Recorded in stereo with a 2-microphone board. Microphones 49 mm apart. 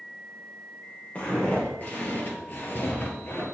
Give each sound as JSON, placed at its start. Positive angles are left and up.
{"t": 1.1, "sound": "footsteps", "side_deg": 30, "distance_m": 2.5}